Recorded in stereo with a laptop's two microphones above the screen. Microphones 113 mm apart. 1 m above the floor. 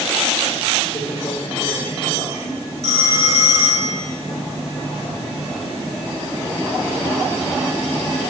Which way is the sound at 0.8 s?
45° left (ahead or behind).